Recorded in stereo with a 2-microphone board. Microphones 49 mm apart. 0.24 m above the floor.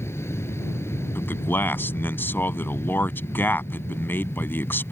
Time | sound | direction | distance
0.0 | an aircraft | 70° left (ahead or behind) | ?
1.1 | a man speaking | 50° left (ahead or behind) | ?